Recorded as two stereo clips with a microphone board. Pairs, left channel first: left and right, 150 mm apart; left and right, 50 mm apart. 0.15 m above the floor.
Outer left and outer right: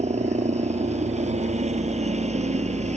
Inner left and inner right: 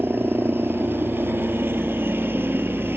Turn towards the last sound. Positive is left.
turn(degrees=-45)  # may be behind; listen again after turning